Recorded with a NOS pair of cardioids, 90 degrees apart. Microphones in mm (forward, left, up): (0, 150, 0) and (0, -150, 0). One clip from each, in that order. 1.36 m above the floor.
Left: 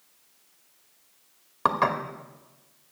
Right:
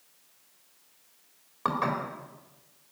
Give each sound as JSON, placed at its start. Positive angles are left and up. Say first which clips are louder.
{"t": 1.6, "sound": "dishes clattering", "louder": "left 5 dB", "azimuth_deg": 45, "distance_m": 2.5}